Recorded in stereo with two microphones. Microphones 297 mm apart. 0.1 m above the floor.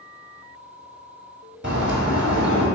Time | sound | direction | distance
1.6 | a bird | 35° right (ahead or behind) | 1.0 m